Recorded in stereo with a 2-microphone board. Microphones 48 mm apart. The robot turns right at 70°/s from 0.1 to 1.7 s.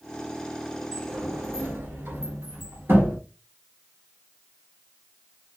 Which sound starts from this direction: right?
A sliding door, at 0.9 s.